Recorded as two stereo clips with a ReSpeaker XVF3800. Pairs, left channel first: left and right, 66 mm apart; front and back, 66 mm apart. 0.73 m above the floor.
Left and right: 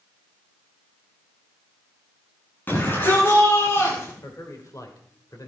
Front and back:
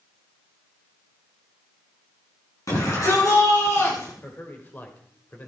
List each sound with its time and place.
2.7 s a shout: 30° left, 8 m; by 4.1 s 40° left, 9.5 m
4.2 s a man speaking: 60° left, 2.5 m